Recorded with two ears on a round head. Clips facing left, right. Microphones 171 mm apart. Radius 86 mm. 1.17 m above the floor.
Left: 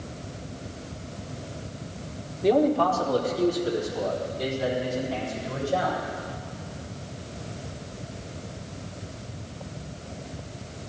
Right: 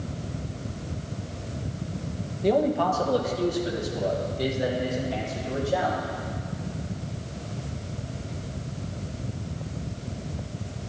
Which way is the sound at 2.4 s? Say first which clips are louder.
Left 2 dB; 5° left (ahead or behind).